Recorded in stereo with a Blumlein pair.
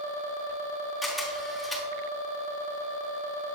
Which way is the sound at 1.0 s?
15° left.